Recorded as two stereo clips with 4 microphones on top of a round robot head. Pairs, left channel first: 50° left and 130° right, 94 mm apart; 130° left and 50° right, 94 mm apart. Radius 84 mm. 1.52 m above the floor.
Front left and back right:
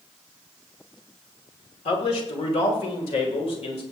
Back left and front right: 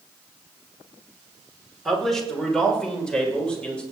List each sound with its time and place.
1.9 s a man speaking: 45° left, 2.0 m; by 3.8 s 55° left, 3 m